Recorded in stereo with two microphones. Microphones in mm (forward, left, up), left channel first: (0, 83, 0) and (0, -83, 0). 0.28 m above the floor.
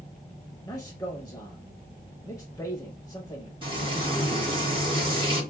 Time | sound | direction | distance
0.6 | a man speaking | 20° left (ahead or behind) | 1.0 m
3.6 | frying | 30° right (ahead or behind) | 3 m